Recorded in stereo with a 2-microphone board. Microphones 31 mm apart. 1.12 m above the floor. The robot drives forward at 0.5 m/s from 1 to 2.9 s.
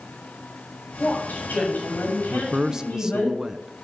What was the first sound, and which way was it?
A woman speaking, 75° left (ahead or behind).